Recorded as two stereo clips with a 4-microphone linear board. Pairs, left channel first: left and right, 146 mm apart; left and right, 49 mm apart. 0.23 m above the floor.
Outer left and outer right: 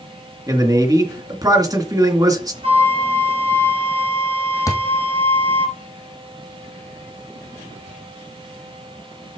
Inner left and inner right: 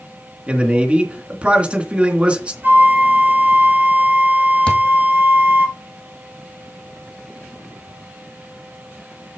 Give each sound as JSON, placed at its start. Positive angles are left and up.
{"t": 0.5, "sound": "a man speaking", "side_deg": -25, "distance_m": 3.0}
{"t": 2.6, "sound": "a flute", "side_deg": -40, "distance_m": 5.5}
{"t": 4.7, "sound": "a thud", "side_deg": 20, "distance_m": 2.5}